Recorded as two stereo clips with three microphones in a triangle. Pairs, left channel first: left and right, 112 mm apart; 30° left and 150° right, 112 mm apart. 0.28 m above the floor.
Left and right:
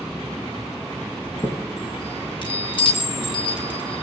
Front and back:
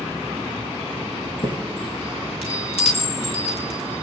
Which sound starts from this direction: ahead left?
A chime, at 1.2 s.